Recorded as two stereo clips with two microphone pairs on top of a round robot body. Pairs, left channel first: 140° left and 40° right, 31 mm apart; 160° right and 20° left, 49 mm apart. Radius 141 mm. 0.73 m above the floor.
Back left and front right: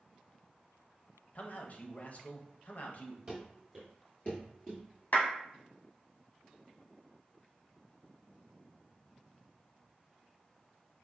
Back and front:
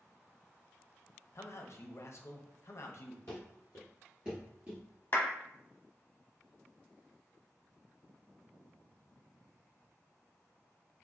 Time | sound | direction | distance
1.4 | a man speaking | 175° left | 0.8 m
3.3 | running footsteps | 100° right | 0.9 m
5.1 | a clap | 155° left | 1.2 m